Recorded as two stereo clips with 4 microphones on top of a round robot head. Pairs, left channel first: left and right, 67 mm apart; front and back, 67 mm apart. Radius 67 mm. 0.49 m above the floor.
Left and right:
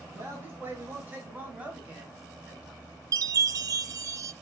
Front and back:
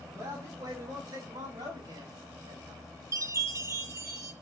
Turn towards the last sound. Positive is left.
turn(degrees=-125)